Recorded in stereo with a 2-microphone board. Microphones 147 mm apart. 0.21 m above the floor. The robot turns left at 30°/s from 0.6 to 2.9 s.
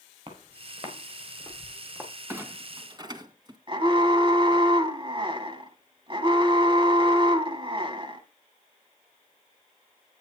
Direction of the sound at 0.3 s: 45° right (ahead or behind).